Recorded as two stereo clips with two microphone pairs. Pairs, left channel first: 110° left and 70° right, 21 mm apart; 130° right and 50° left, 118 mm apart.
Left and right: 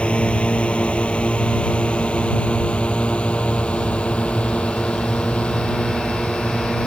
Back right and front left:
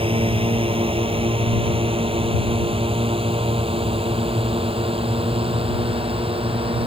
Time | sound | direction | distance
0.0 | a drone | 85° left | ?